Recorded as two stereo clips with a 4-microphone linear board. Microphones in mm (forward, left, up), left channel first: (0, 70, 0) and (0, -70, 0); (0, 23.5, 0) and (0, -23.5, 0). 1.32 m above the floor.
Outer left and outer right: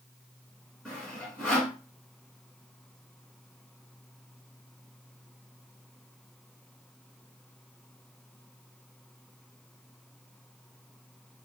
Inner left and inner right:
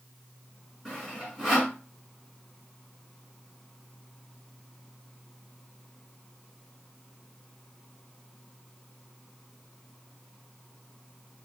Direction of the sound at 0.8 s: 5° left (ahead or behind).